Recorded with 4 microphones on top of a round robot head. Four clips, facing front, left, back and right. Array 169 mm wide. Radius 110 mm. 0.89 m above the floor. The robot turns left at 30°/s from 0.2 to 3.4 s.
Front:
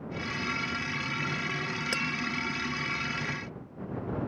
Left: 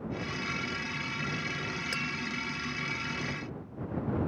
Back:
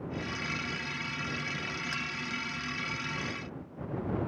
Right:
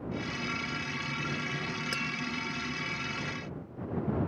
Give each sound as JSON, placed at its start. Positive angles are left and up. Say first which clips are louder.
{"t": 1.9, "sound": "tapping", "louder": "even, front 5 dB", "azimuth_deg": -5}